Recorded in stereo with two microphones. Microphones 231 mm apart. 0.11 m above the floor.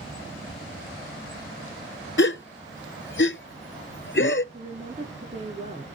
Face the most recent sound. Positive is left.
turn(degrees=-25)  # may be behind; listen again after turning